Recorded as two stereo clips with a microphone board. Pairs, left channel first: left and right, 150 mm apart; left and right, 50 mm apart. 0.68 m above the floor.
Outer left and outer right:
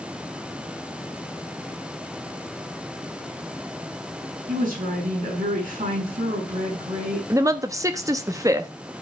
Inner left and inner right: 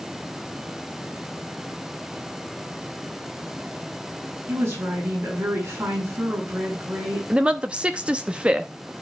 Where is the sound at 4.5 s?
60° right (ahead or behind), 6.5 m.